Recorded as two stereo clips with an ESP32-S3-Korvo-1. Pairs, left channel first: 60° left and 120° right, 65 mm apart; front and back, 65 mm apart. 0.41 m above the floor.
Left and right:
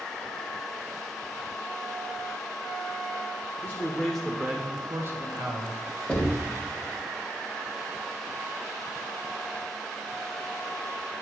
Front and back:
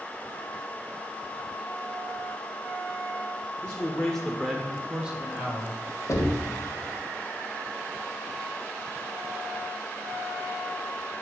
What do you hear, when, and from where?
3.6 s a man speaking: 50° left, 1.1 m; by 5.8 s 120° right, 1.8 m
6.1 s knocking: 15° right, 1.4 m